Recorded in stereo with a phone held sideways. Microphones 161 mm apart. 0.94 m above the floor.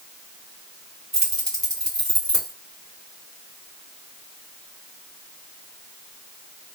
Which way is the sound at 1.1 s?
Centre (ahead or behind).